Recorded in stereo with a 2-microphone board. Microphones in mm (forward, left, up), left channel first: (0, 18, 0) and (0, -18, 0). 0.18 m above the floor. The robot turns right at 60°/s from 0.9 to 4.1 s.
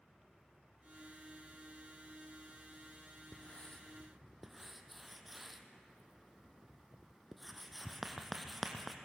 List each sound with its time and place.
3.3 s writing: 45° left (ahead or behind), 1.5 m; by 8.9 s centre (ahead or behind), 1.5 m